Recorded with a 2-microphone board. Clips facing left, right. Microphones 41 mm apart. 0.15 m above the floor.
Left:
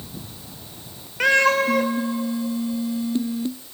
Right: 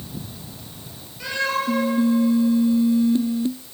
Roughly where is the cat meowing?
Left.